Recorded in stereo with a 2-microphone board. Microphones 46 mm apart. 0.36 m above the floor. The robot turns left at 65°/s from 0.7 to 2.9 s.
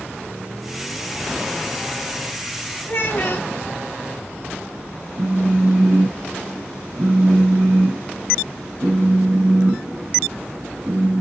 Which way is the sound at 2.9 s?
40° left (ahead or behind).